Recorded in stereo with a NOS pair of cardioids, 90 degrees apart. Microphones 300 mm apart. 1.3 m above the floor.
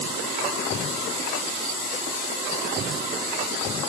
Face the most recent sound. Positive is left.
No sound to turn to.